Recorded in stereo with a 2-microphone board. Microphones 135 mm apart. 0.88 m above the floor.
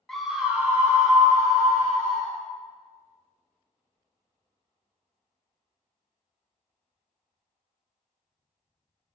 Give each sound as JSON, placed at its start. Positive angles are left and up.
{"t": 0.1, "sound": "a scream", "side_deg": 0, "distance_m": 0.9}